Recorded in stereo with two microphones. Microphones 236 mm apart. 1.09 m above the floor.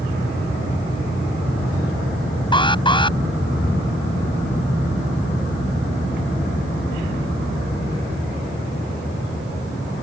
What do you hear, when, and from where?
2.5 s an alarm: 20° left (ahead or behind)